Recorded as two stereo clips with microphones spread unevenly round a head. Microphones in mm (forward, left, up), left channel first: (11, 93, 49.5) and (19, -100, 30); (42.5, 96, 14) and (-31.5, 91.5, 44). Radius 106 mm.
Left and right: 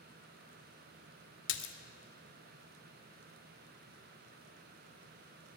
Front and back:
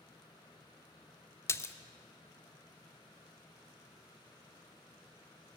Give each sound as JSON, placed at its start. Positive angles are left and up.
{"t": 1.5, "sound": "a splash", "azimuth_deg": 65, "distance_m": 0.7}